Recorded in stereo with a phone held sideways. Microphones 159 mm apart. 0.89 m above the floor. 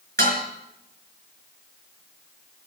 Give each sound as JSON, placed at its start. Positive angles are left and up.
{"t": 0.2, "sound": "dishes clattering", "side_deg": -65, "distance_m": 4.0}